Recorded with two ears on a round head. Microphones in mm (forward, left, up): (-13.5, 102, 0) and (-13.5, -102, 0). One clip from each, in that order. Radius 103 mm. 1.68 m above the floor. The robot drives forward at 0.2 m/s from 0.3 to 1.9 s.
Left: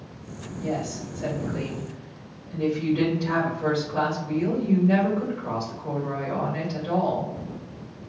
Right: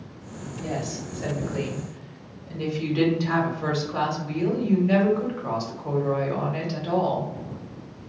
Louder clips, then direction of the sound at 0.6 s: Left 2 dB; 70° right (ahead or behind).